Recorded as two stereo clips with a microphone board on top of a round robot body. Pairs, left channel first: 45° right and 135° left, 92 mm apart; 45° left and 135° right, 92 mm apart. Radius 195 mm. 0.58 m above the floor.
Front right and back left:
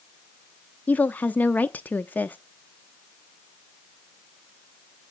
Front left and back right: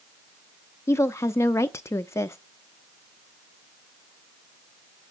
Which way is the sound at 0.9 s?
15° left.